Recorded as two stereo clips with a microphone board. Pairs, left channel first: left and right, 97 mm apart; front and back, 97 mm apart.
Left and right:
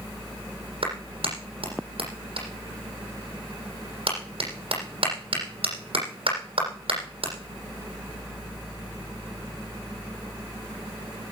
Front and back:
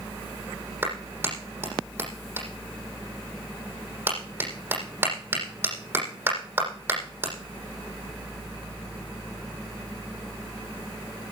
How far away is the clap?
About 9 m.